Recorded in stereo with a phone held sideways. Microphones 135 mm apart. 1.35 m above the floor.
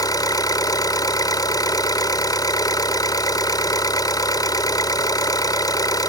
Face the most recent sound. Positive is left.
turn(degrees=30)  # may be behind; listen again after turning